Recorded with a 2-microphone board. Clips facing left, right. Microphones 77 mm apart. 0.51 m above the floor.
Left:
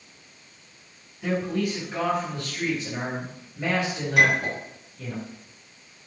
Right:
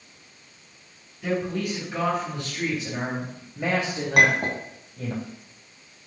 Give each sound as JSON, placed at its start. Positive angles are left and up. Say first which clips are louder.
{"t": 1.2, "sound": "a man speaking", "louder": "left 1 dB", "side_deg": 15, "distance_m": 3.5}
{"t": 4.2, "sound": "a clink", "louder": "right 1 dB", "side_deg": -70, "distance_m": 2.5}